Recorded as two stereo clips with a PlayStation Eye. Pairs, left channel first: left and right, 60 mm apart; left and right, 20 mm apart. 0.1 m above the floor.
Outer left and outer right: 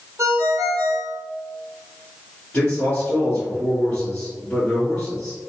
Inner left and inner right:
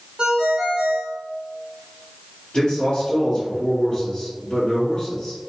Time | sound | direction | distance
0.2 | a ringtone | 55° right (ahead or behind) | 1.2 m
2.5 | a man speaking | 25° left (ahead or behind) | 1.5 m